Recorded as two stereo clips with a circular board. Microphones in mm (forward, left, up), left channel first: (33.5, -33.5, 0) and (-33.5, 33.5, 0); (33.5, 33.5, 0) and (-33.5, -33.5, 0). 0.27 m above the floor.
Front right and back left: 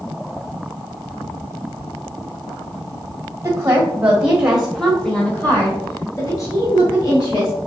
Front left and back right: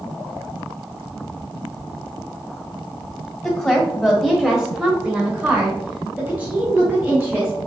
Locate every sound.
3.4 s a woman speaking: 115° left, 1.3 m; by 7.5 s 65° right, 1.9 m